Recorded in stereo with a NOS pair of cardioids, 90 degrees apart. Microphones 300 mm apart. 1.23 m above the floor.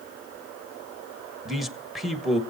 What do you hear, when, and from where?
1.4 s a man speaking: straight ahead, 1.5 m